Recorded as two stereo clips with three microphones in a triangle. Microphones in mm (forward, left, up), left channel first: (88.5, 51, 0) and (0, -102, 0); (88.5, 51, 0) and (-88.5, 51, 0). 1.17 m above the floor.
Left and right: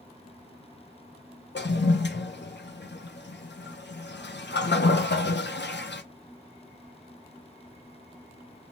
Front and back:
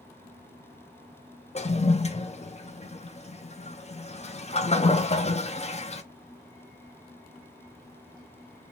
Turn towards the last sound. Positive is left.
turn(degrees=55)